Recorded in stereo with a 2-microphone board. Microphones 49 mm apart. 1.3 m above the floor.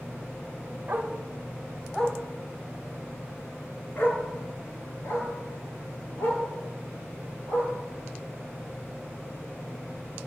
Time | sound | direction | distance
0.9 | a dog barking | 40° right (ahead or behind) | 1.9 m